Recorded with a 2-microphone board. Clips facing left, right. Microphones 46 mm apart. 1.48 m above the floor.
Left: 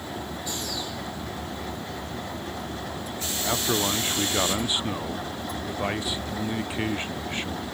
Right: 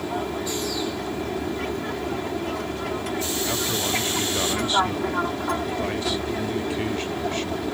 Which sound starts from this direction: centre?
A man speaking, at 3.4 s.